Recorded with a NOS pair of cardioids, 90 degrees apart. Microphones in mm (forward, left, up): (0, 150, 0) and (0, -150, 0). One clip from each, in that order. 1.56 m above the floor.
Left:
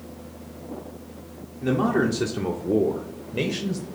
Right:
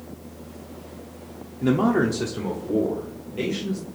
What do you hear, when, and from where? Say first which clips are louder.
1.6 s a man speaking: right 1 dB; 25° right, 0.6 m; by 3.9 s 65° left, 1.3 m